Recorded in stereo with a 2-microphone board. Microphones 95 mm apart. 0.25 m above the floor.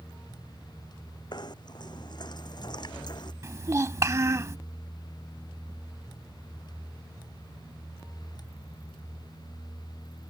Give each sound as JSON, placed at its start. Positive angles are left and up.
{"t": 1.3, "sound": "knocking", "side_deg": 50}
{"t": 3.4, "sound": "a child speaking", "side_deg": -30}